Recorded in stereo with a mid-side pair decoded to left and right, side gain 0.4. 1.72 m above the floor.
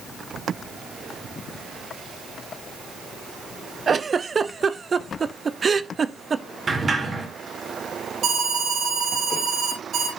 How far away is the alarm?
About 4 m.